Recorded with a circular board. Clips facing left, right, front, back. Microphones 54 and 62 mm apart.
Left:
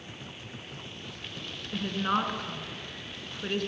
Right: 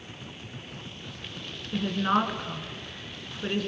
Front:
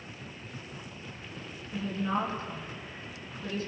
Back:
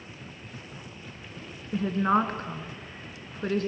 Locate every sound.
1.7 s a woman speaking: 170° right, 2.5 m